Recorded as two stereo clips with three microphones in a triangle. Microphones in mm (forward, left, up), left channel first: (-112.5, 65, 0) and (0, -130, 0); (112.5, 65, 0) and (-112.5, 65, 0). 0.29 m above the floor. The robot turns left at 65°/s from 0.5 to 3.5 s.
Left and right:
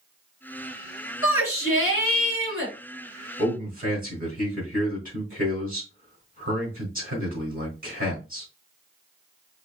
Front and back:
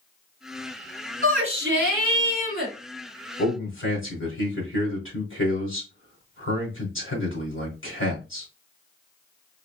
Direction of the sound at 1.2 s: 135° left.